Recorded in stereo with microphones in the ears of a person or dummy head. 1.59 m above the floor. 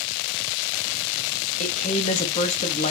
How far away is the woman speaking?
About 1.1 m.